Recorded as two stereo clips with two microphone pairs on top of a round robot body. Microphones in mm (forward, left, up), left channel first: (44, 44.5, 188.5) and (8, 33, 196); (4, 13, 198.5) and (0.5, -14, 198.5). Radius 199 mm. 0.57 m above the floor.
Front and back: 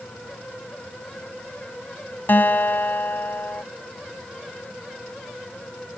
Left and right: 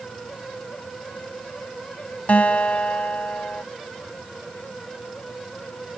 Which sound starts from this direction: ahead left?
A guitar, at 2.3 s.